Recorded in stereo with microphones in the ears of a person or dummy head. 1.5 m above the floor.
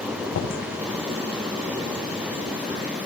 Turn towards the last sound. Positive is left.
turn(degrees=70)  # may be behind; listen again after turning